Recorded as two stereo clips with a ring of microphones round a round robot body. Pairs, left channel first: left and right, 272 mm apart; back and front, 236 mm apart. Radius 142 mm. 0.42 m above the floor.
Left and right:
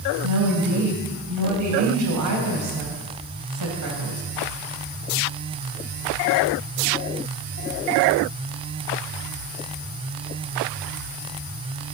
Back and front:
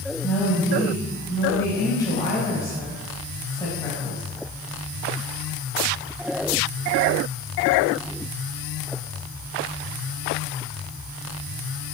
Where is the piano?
No piano in this recording.